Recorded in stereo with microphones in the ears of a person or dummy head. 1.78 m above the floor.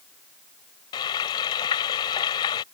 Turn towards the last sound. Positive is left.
turn(degrees=20)  # may be behind; listen again after turning